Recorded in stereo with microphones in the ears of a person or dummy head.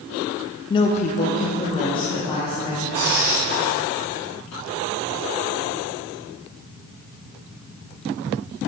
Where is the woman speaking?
25° left (ahead or behind), 0.7 m; by 2.8 s 15° left (ahead or behind), 2.5 m.